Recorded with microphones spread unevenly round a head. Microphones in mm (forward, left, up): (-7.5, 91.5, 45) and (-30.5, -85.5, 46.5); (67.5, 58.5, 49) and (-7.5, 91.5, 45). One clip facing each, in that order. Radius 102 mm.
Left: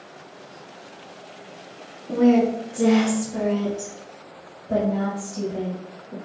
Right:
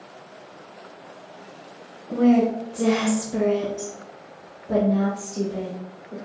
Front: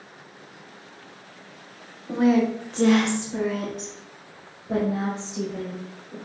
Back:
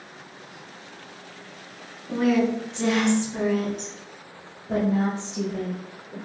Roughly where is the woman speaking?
Ahead left.